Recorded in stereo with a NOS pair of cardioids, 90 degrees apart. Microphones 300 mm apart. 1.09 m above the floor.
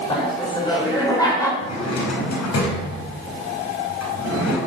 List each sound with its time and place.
0.1 s laughter: 15° left, 5.5 m; by 1.5 s 10° left, 4.5 m
1.6 s a drawer: 65° left, 4.5 m